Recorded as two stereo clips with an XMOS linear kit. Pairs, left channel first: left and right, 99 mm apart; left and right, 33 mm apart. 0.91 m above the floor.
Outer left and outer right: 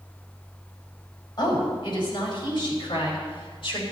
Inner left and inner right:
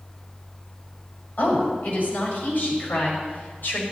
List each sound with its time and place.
1.4 s a woman speaking: 45° left (ahead or behind), 5.5 m; by 3.8 s 60° left (ahead or behind), 4.5 m